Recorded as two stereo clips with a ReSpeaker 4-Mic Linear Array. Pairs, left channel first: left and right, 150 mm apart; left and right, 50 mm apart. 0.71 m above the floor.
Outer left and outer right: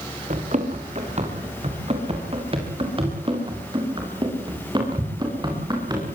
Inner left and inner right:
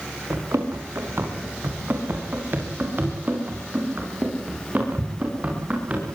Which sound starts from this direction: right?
Running footsteps, at 0.3 s.